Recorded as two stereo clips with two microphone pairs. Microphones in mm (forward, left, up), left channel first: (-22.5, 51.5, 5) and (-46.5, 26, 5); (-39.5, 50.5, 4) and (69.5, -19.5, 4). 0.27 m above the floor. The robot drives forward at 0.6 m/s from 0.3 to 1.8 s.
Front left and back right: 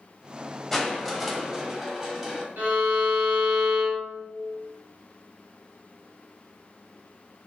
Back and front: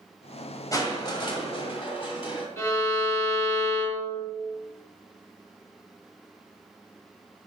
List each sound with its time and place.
0.7 s crushing: 125° left, 1.4 m; by 2.5 s 150° left, 1.7 m
2.6 s a violin: 145° right, 3 m